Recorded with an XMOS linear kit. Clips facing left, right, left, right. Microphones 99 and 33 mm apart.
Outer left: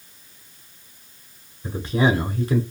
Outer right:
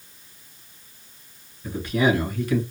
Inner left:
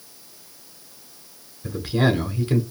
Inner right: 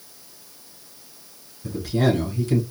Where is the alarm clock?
I don't hear an alarm clock.